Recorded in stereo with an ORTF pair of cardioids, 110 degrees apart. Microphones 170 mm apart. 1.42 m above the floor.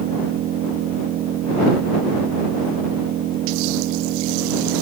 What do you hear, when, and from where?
0.0 s an engine running: 65° right